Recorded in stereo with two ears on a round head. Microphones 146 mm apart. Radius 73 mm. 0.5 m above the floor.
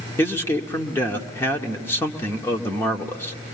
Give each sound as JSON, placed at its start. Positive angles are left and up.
{"t": 0.2, "sound": "a man speaking", "side_deg": 15, "distance_m": 1.4}